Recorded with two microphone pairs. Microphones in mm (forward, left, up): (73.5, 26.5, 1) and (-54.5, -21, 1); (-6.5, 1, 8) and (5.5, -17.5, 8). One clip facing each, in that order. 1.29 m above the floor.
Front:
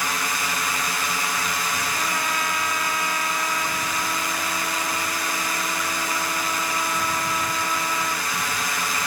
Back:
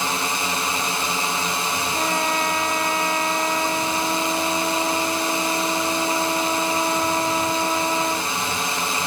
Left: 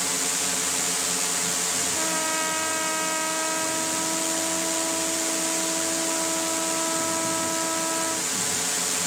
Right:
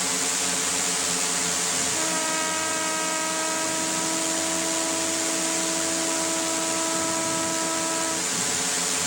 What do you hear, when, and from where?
0.0 s a drone: 140° right
1.9 s a trumpet: 155° right